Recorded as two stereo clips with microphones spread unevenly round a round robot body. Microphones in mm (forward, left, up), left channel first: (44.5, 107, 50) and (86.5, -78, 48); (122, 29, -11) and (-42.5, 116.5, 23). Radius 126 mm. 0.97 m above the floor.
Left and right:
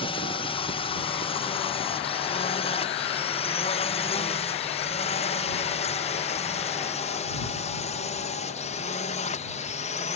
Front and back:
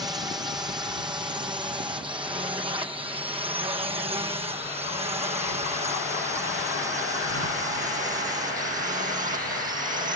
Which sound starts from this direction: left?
A drone, at 0.0 s.